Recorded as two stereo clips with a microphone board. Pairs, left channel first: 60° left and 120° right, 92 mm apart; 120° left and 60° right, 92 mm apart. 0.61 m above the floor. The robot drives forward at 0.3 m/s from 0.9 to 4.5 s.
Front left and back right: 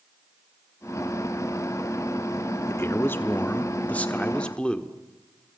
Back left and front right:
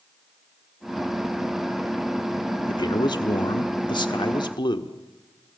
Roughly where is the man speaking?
Behind left.